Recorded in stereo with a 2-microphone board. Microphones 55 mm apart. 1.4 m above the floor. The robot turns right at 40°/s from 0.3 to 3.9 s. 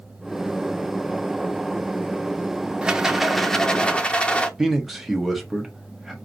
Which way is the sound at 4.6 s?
5° right (ahead or behind).